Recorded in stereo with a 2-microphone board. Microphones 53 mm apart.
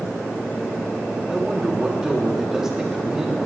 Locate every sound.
1.3 s a man speaking: 10° right (ahead or behind), 2.5 m